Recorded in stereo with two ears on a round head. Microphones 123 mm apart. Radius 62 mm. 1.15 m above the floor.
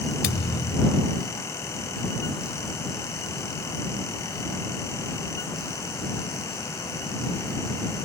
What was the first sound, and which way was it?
A thud, 75° left (ahead or behind).